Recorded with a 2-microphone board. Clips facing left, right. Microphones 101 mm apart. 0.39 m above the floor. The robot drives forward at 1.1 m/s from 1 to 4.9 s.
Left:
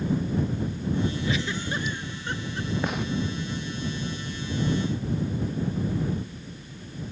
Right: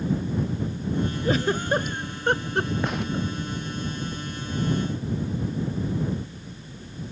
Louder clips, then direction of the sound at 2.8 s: Right 1 dB; centre (ahead or behind).